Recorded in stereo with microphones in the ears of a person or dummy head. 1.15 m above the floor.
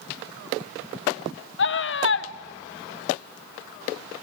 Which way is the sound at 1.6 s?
55° left (ahead or behind).